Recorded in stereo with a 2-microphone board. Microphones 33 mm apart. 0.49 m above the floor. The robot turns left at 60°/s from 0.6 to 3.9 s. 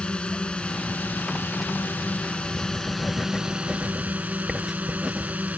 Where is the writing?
70° left; by 5.3 s 15° right.